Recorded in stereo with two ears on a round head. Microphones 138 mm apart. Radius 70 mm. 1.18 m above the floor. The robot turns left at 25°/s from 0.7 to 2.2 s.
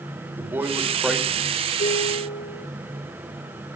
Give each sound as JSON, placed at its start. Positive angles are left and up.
{"t": 0.4, "sound": "a man speaking", "side_deg": -15, "distance_m": 4.5}
{"t": 1.8, "sound": "dishes clattering", "side_deg": 85, "distance_m": 9.0}